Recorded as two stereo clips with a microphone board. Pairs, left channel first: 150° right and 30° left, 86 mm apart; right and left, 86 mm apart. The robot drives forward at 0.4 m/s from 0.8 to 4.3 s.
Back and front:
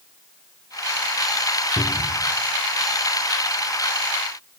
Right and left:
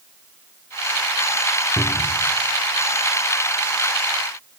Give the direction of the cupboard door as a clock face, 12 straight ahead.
6 o'clock.